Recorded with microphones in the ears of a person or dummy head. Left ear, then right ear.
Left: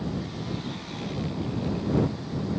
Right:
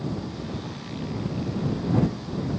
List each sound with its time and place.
Only background noise.